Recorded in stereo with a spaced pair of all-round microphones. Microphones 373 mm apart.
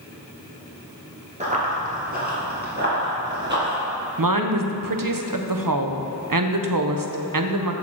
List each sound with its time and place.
1.4 s running footsteps: 20° right (ahead or behind), 1.6 m; by 3.8 s 30° right (ahead or behind), 2.5 m
4.2 s a woman speaking: 60° right (ahead or behind), 0.6 m